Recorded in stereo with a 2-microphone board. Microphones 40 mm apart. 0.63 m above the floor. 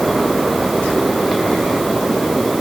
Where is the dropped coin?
No dropped coin in this recording.